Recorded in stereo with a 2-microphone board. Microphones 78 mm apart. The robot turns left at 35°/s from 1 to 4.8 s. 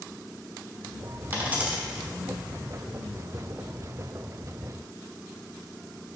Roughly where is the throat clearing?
I don't hear throat clearing.